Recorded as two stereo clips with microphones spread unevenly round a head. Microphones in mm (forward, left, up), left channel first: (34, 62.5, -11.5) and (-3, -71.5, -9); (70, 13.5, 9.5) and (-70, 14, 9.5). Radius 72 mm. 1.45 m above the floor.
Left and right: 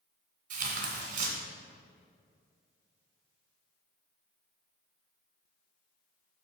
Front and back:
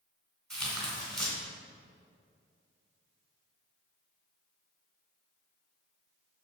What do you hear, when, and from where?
0.5 s tearing paper: 85° right, 2.5 m